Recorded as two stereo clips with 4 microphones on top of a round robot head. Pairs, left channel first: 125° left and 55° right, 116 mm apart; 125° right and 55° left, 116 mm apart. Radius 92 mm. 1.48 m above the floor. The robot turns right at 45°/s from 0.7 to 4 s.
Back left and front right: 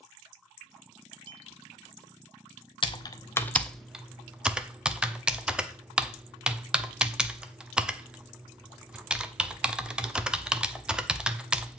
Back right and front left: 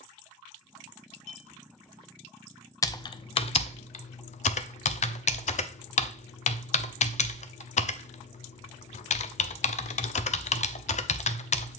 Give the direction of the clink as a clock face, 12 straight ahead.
3 o'clock.